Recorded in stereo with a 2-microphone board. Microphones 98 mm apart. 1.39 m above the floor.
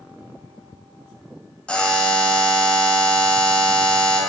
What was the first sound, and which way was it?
A buzzer, 10° left (ahead or behind).